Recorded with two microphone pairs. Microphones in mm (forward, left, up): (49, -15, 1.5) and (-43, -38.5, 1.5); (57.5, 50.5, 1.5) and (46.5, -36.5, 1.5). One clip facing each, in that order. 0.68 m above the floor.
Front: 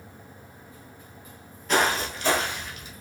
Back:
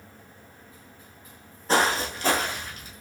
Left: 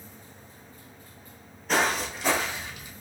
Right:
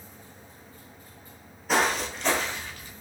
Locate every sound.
1.7 s footsteps: straight behind, 0.7 m; by 2.9 s 155° left, 1.1 m